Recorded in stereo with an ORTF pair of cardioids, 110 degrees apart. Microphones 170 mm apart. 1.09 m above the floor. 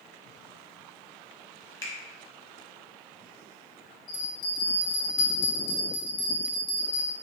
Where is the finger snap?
20° left, 0.9 m.